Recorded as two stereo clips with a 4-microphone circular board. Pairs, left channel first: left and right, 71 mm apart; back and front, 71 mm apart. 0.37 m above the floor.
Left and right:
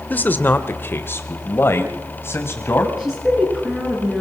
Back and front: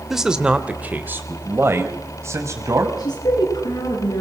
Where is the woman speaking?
175° right, 5 m.